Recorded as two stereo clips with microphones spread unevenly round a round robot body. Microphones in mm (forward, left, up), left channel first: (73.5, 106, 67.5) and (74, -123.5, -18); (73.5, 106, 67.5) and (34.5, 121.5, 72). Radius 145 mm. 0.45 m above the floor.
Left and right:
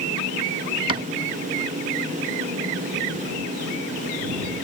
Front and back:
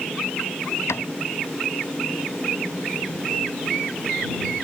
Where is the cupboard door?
25° right.